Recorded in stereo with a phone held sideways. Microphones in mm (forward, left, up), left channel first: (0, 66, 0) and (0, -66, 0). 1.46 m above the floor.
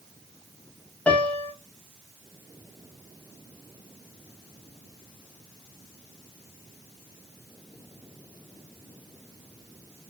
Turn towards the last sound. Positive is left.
turn(degrees=10)  # may be behind; listen again after turning